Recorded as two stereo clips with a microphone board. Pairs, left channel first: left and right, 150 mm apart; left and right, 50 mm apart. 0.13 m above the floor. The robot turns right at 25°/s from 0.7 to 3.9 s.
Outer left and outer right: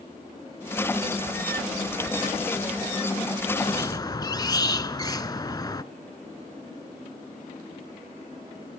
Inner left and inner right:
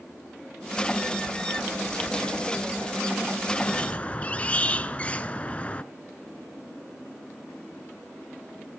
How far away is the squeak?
About 0.7 m.